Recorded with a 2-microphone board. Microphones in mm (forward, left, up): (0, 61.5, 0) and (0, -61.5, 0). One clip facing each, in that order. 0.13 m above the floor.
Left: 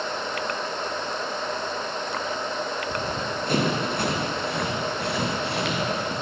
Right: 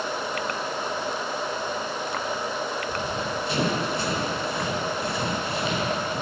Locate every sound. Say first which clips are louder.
2.9 s running footsteps: even; 40° left (ahead or behind), 3 m; by 6.1 s 75° left (ahead or behind), 6 m